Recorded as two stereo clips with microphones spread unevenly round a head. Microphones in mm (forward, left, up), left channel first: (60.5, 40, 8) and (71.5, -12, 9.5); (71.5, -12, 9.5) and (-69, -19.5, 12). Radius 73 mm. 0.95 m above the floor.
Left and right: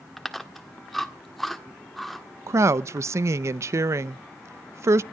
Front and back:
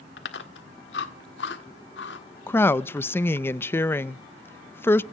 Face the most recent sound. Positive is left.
turn(degrees=-70)